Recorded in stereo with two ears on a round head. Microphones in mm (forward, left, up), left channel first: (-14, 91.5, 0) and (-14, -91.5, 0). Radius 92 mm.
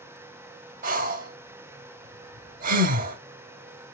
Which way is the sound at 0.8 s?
40° right (ahead or behind).